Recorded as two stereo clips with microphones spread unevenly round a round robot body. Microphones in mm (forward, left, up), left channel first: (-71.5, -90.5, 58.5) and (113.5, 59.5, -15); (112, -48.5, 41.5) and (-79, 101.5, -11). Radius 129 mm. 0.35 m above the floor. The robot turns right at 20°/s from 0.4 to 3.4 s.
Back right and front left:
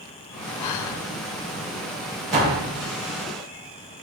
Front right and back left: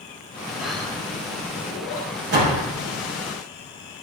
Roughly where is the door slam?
Left.